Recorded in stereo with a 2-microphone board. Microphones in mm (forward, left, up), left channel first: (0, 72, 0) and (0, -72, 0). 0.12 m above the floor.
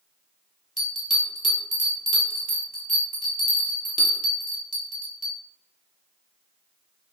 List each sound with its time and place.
0.8 s a bell: 65° left (ahead or behind), 0.8 m